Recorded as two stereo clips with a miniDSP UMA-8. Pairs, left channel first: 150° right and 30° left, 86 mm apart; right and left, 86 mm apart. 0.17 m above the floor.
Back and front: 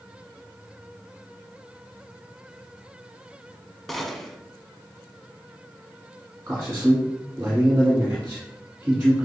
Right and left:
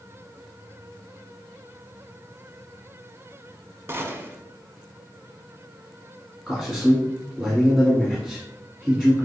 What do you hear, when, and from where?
3.9 s a gunshot: 120° left, 0.5 m
6.5 s a man speaking: 5° left, 1.5 m